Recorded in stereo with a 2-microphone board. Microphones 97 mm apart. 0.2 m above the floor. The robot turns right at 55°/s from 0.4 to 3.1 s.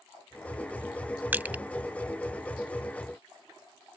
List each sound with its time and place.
1.3 s crushing: 15° right (ahead or behind)